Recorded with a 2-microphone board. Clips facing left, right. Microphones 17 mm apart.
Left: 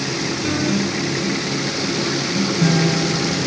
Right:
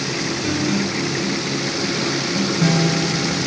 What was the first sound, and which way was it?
A guitar, 10° left (ahead or behind).